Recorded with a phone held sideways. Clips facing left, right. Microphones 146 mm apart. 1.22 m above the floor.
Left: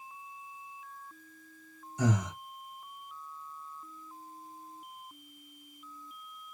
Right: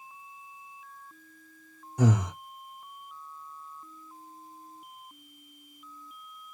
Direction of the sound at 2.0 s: 65° right (ahead or behind).